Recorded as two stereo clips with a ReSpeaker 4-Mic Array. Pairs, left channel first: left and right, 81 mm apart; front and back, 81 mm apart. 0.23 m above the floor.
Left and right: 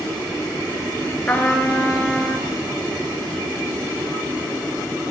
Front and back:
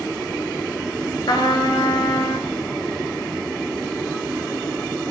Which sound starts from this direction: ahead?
A trumpet, at 1.3 s.